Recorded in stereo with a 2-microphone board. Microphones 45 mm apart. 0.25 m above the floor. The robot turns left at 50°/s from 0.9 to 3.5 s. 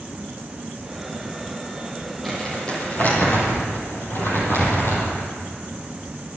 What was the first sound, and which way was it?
Crumpling, 175° left.